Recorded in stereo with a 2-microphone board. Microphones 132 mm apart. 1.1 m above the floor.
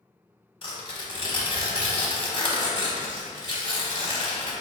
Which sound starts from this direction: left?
Tearing paper, at 0.6 s.